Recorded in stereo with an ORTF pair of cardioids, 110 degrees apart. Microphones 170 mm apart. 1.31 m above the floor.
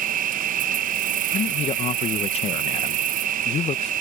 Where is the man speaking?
40° left.